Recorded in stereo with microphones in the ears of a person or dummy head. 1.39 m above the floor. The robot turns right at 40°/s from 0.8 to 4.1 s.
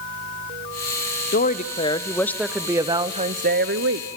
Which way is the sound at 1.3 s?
135° left.